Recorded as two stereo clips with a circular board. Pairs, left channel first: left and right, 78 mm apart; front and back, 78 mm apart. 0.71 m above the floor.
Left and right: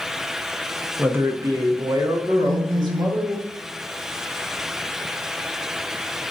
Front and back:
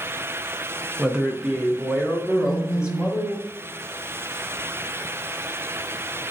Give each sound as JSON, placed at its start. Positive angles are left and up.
{"t": 1.0, "sound": "a man speaking", "azimuth_deg": -115, "distance_m": 0.5}
{"t": 2.4, "sound": "a phone buzzing", "azimuth_deg": -140, "distance_m": 1.6}